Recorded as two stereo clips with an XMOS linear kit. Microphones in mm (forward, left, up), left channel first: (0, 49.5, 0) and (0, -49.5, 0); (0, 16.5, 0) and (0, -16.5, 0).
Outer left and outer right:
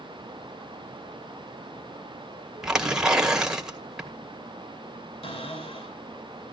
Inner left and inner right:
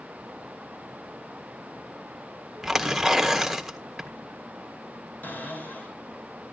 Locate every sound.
2.6 s tearing paper: 5° right (ahead or behind), 1.6 m
5.2 s a cupboard door: 80° left, 6 m